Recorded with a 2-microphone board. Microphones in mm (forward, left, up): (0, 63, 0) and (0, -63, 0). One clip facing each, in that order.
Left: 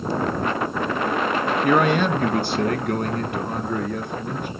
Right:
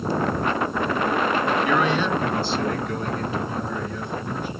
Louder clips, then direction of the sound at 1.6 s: Left 3 dB; 50° left (ahead or behind).